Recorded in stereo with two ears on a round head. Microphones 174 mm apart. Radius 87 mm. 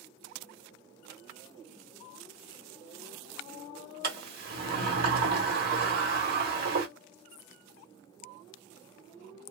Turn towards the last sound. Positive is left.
turn(degrees=-50)  # may be behind; listen again after turning